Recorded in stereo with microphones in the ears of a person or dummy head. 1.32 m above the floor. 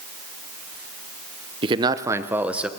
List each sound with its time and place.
1.6 s a man speaking: 30° right (ahead or behind), 0.9 m; by 2.7 s centre (ahead or behind), 1.2 m